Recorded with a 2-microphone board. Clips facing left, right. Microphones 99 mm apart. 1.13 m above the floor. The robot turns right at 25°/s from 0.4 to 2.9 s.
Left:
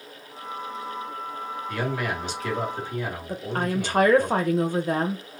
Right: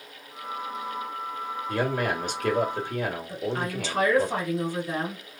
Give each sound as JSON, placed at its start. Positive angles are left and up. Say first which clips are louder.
{"t": 1.7, "sound": "a man speaking", "louder": "right 2 dB", "azimuth_deg": -145, "distance_m": 1.5}
{"t": 3.3, "sound": "a woman speaking", "louder": "left 2 dB", "side_deg": 55, "distance_m": 0.9}